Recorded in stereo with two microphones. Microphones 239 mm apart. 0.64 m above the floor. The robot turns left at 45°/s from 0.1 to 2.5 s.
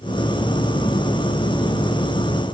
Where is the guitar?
I don't hear a guitar.